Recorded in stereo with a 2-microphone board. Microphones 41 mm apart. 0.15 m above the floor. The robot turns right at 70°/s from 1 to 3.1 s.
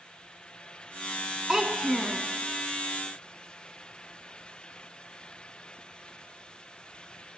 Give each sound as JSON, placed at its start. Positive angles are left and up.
{"t": 1.5, "sound": "a child speaking", "side_deg": -15, "distance_m": 0.7}